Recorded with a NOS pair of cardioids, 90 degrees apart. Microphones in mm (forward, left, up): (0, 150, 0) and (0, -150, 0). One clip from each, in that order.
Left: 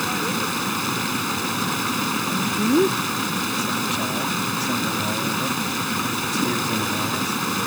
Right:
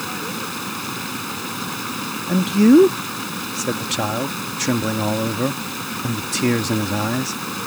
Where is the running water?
20° left.